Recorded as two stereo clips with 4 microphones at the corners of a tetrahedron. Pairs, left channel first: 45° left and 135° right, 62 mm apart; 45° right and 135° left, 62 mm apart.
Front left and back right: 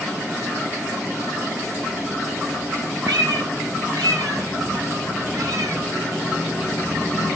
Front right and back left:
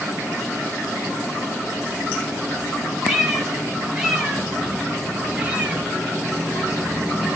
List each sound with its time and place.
3.1 s a cat meowing: 145° right, 5 m; by 5.8 s 160° right, 3.5 m